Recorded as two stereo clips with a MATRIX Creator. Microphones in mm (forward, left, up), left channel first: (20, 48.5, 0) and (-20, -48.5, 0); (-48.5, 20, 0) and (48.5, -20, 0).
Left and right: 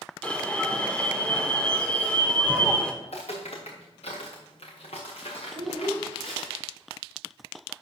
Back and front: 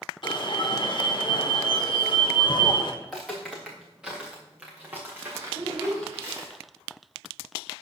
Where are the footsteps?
70° left, 3 m; by 6.5 s 35° left, 3.5 m.